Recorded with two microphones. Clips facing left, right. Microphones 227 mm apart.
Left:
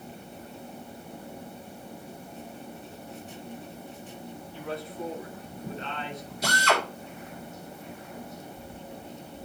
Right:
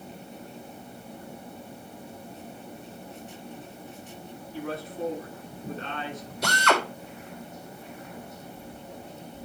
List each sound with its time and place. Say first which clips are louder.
4.5 s a man speaking: right 3 dB; 50° right (ahead or behind), 7.5 m
6.4 s a drill: right 2 dB; 70° right (ahead or behind), 2.5 m